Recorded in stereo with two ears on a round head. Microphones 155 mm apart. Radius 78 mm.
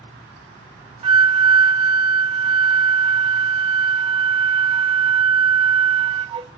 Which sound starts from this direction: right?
A flute, at 1.0 s.